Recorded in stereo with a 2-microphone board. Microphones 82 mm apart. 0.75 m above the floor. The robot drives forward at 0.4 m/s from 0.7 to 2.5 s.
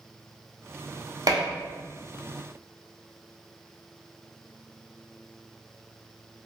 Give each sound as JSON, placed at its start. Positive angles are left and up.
{"t": 1.3, "sound": "dishes clattering", "side_deg": -55, "distance_m": 0.6}